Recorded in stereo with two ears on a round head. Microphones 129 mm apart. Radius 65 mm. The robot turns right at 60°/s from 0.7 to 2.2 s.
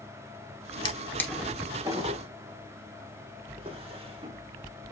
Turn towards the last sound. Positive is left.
turn(degrees=-45)  # may be behind; listen again after turning